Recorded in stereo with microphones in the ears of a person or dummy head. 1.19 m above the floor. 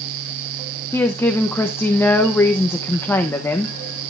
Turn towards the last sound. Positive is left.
turn(degrees=10)  # may be behind; listen again after turning